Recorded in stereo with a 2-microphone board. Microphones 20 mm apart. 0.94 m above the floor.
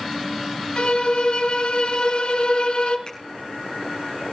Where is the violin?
60° left (ahead or behind), 2.5 m.